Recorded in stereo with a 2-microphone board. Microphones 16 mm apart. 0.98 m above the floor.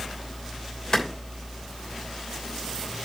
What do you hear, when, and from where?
0.9 s a clap: 60° left (ahead or behind), 3 m